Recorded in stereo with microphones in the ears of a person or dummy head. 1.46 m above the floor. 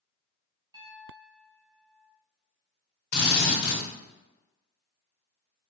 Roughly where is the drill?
Left.